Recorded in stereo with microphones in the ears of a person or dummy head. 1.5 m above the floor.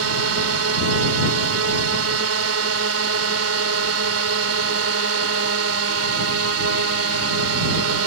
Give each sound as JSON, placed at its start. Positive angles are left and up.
{"t": 0.0, "sound": "a drone", "side_deg": -75}